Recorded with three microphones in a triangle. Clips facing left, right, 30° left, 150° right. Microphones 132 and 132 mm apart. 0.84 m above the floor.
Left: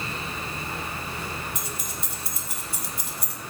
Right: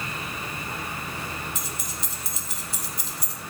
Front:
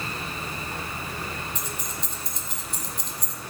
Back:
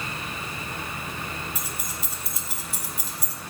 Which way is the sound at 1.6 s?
130° left.